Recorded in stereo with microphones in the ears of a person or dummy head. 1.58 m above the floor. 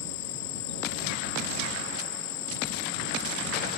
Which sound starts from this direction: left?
An insect, at 0.0 s.